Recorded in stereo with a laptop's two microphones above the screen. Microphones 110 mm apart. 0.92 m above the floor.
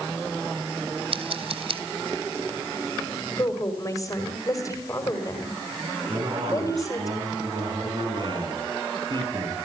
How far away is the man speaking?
About 8.5 m.